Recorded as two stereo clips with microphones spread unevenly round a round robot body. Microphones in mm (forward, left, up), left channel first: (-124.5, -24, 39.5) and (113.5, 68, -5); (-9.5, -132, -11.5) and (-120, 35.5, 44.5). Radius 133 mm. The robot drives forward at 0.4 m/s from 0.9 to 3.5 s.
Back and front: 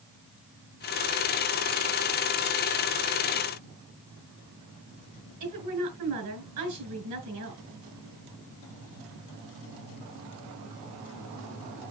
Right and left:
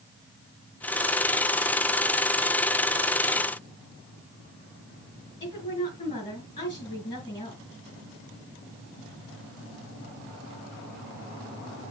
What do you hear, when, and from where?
5.4 s a woman speaking: 15° left, 4 m